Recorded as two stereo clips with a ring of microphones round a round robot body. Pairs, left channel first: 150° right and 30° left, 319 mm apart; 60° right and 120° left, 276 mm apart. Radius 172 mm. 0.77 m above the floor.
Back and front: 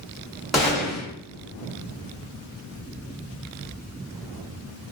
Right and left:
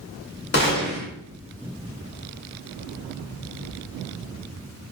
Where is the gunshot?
60° right, 1.3 m.